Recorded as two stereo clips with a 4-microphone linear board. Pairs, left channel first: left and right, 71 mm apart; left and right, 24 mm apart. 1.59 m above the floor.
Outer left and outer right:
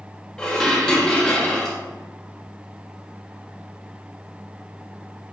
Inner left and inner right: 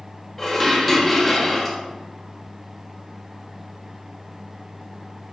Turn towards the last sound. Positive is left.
turn(degrees=10)  # may be behind; listen again after turning